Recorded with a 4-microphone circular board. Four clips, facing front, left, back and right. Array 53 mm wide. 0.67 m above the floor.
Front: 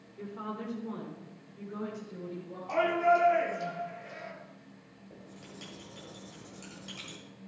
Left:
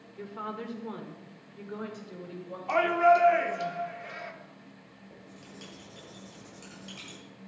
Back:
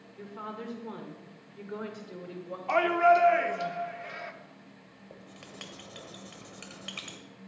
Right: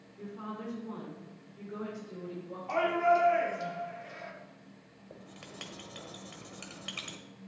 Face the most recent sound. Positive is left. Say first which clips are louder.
# right 2 dB, back 1 dB
turn(degrees=-140)